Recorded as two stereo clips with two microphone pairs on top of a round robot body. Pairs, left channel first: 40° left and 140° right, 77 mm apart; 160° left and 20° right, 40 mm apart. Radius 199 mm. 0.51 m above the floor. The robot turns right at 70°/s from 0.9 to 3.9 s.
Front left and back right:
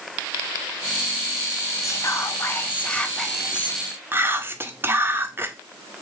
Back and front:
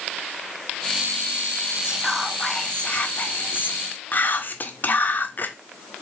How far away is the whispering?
About 0.8 m.